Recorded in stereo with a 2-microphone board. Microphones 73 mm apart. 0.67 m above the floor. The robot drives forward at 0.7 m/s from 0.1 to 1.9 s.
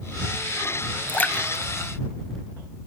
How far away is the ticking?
I don't hear ticking.